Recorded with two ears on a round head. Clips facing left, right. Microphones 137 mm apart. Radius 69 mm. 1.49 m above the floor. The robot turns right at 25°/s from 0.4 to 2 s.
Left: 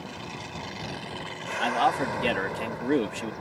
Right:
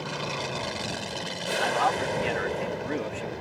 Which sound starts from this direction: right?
An aircraft, at 0.0 s.